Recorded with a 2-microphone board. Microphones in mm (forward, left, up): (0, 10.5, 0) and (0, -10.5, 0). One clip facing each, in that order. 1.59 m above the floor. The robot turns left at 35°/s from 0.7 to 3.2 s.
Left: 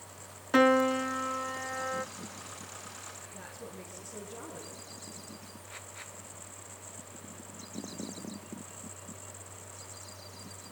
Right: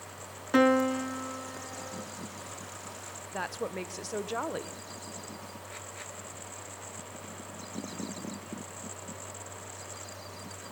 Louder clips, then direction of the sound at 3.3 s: Right 10 dB; 85° right.